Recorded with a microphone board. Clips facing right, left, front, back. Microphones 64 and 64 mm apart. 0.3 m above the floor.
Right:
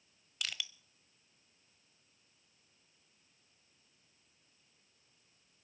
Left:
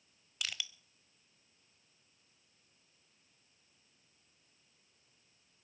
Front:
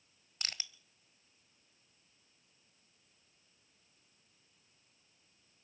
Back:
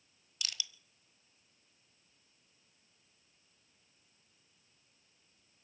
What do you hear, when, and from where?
0.4 s crushing: 5° left, 0.9 m